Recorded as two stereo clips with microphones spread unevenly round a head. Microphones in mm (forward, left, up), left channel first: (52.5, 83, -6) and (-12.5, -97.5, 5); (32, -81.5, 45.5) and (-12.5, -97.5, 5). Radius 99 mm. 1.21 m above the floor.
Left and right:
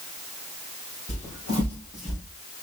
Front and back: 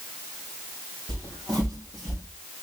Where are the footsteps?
125° left, 3 m; by 2.2 s 150° left, 3.5 m.